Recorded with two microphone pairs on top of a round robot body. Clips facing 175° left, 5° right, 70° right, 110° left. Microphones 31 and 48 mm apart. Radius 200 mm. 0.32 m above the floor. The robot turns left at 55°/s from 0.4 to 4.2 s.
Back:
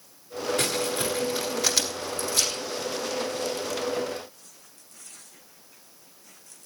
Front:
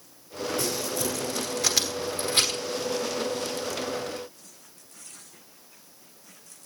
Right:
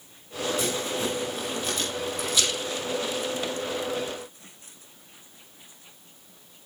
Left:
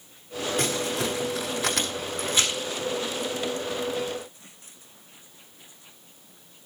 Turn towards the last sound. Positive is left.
turn(degrees=-50)